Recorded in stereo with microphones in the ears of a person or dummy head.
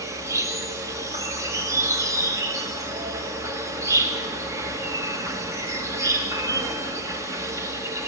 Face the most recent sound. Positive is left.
turn(degrees=-15)  # may be behind; listen again after turning